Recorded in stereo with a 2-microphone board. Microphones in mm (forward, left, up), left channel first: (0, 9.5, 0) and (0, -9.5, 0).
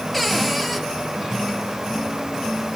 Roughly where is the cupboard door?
Centre.